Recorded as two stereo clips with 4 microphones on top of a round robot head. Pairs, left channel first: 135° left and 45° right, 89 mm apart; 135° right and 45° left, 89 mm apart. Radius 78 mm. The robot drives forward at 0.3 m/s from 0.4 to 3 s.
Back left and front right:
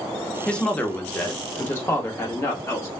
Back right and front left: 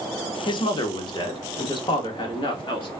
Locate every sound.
0.5 s a woman speaking: 145° right, 0.6 m; by 2.9 s 165° right, 1.2 m